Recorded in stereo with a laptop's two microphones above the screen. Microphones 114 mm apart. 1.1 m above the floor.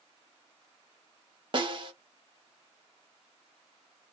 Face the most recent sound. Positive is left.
turn(degrees=-45)  # may be behind; listen again after turning